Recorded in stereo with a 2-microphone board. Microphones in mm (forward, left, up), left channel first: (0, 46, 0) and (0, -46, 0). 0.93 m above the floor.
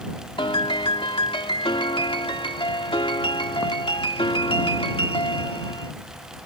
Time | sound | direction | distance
0.4 | a piano | 70° left (ahead or behind) | ?